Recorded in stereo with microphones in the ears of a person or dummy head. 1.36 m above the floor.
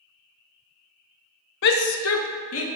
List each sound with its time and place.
1.6 s a shout: 65° left (ahead or behind), 0.9 m; by 2.7 s 75° left (ahead or behind), 1.5 m